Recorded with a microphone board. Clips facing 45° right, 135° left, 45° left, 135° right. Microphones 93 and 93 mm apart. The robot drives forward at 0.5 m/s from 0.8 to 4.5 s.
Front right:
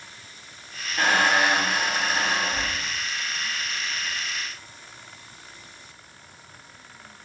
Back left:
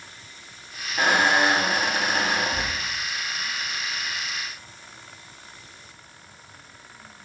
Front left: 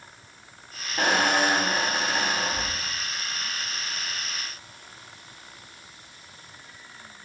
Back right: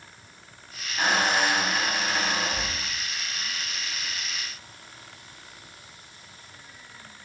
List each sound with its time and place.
1.0 s a squeak: 60° left, 0.7 m; by 2.9 s 140° left, 0.9 m